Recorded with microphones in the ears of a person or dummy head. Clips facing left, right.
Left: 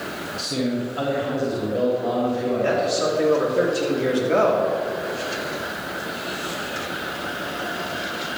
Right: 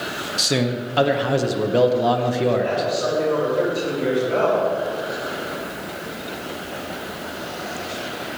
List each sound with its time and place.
0.4 s a man speaking: 80° right, 1.2 m
2.6 s a man speaking: 50° left (ahead or behind), 3.5 m